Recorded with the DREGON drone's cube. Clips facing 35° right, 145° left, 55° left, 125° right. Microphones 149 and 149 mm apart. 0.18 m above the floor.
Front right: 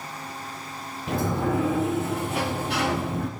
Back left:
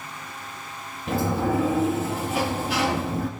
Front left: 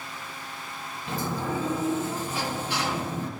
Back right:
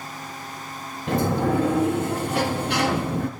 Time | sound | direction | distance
1.1 | a sliding door | 125° right | 1.2 m